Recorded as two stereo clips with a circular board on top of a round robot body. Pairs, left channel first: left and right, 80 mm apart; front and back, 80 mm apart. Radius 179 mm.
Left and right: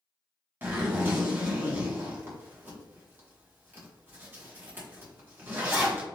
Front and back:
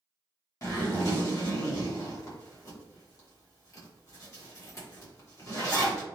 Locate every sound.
0.6 s a zipper: 35° right, 1.2 m